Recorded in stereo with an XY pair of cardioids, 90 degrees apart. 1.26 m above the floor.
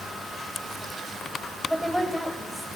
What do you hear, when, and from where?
1.7 s a woman speaking: straight ahead, 5 m